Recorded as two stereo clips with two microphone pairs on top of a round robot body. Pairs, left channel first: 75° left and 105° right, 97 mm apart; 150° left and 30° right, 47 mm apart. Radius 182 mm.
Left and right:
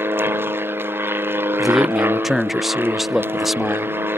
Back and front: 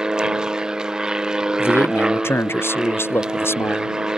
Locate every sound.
0.0 s an aircraft: 85° right
1.6 s a man speaking: 170° left